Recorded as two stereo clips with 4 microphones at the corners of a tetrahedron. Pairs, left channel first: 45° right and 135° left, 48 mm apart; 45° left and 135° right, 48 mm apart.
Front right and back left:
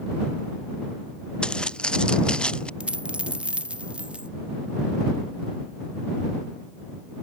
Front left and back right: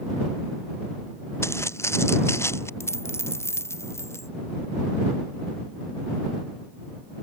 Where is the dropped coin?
70° left.